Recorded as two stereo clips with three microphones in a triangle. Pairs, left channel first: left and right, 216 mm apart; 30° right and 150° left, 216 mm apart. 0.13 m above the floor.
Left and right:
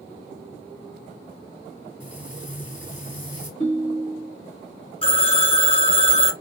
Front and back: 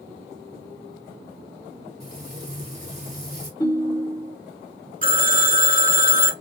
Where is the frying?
115° left, 2 m.